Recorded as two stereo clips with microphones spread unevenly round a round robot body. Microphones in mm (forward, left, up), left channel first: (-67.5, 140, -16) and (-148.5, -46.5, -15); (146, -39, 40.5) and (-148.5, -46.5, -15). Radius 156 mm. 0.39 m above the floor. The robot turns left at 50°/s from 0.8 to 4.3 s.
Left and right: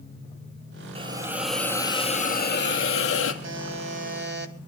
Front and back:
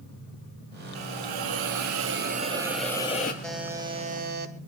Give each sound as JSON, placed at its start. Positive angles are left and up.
{"t": 0.9, "sound": "a hiss", "azimuth_deg": -175, "distance_m": 2.5}
{"t": 3.4, "sound": "a buzzer", "azimuth_deg": -90, "distance_m": 2.5}